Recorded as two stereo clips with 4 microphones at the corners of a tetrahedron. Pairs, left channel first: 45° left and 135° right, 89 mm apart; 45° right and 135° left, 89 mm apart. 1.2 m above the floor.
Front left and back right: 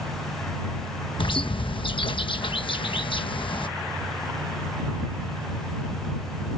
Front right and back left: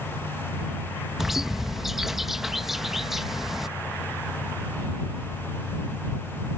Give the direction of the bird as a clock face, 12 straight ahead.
10 o'clock.